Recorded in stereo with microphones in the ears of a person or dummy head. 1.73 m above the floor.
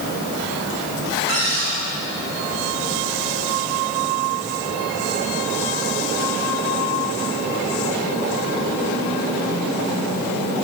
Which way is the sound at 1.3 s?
50° right (ahead or behind).